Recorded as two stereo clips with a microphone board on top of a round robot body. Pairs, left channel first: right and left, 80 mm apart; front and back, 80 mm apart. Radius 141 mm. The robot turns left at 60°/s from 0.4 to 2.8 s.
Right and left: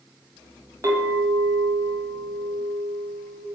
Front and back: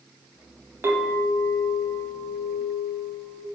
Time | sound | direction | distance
0.8 | a clink | 130° left | 0.8 m